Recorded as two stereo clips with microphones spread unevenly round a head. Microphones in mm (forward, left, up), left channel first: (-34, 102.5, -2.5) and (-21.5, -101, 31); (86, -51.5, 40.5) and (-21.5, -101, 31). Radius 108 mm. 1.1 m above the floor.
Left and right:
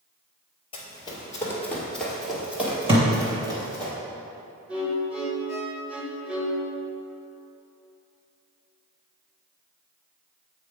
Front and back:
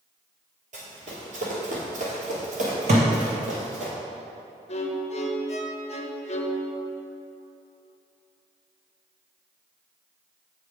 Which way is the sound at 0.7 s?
160° left.